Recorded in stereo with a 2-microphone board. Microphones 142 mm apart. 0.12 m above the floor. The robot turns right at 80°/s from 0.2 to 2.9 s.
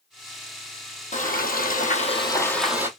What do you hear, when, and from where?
1.1 s frying: 55° left, 1.3 m; by 2.9 s 160° right, 1.3 m